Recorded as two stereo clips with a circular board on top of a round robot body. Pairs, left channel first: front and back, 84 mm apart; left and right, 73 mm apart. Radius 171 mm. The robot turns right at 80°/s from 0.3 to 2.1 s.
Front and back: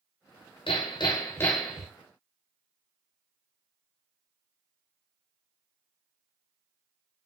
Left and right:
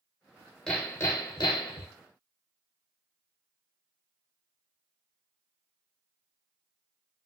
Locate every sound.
0.7 s hammering: 10° left, 0.7 m; by 1.9 s 105° left, 0.7 m